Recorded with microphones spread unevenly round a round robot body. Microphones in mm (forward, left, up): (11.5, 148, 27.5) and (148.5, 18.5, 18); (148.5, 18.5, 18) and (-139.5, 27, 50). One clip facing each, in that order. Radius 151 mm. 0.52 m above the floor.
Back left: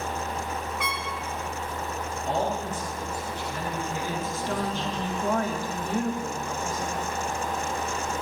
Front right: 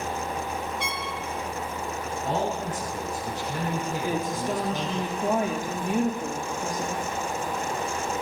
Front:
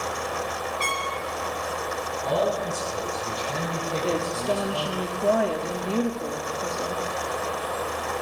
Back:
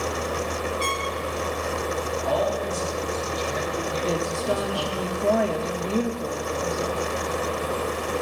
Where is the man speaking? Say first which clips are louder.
Even, front 1 dB; 55° right, 5.5 m.